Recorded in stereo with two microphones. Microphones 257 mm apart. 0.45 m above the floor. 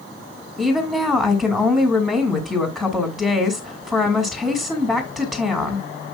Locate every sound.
0.6 s a woman speaking: 5° right (ahead or behind), 2 m